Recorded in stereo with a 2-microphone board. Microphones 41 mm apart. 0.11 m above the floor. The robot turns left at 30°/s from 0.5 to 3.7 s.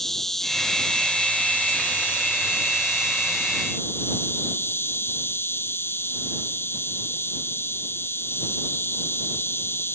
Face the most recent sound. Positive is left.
turn(degrees=75)